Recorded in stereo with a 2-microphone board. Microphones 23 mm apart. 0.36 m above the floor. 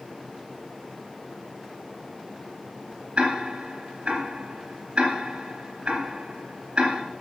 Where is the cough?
I don't hear a cough.